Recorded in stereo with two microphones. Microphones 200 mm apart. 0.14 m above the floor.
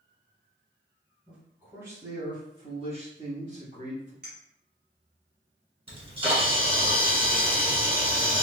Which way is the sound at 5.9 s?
30° right (ahead or behind).